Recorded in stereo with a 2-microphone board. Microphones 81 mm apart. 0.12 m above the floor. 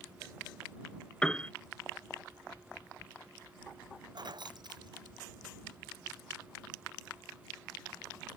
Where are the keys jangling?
60° right (ahead or behind).